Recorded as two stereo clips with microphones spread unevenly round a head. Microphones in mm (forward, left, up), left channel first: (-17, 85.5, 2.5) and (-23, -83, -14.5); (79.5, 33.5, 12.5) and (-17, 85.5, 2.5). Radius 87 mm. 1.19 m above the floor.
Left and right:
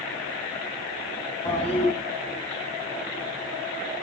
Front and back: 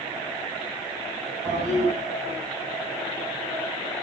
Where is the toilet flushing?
145° left, 8 m.